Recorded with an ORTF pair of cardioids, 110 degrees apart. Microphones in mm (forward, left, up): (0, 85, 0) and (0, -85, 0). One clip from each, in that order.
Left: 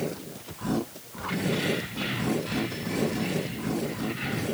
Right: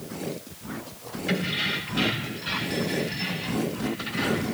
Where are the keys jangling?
65° right, 6 m; by 4.5 s 75° right, 9 m.